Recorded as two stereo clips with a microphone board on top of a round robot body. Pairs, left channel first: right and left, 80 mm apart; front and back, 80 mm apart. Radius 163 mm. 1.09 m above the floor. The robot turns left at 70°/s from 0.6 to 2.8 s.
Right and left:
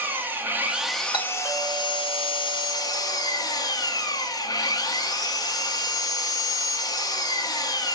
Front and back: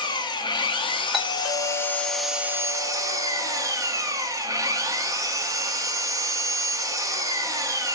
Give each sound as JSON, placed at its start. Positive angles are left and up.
{"t": 0.0, "sound": "an engine running", "azimuth_deg": 25, "distance_m": 0.9}
{"t": 1.1, "sound": "a doorbell", "azimuth_deg": -90, "distance_m": 1.8}